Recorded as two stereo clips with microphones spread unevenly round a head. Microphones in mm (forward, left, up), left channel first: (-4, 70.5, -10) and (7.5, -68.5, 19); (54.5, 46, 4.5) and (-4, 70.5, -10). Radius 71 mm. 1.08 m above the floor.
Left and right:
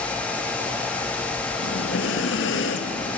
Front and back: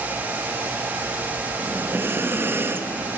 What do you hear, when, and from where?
1.6 s breathing: 95° left, 0.8 m